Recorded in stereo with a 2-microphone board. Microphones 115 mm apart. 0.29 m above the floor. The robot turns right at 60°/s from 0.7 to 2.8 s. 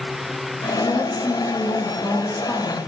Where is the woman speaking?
75° left, 2.5 m; by 2.8 s 170° right, 2.5 m.